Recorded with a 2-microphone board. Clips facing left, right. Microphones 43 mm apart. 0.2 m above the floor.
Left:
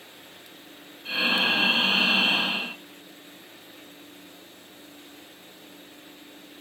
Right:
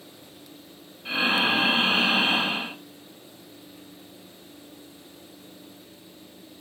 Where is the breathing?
15° right (ahead or behind), 2.5 m.